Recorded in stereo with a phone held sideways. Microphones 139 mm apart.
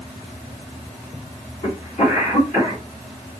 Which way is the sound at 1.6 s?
45° left (ahead or behind).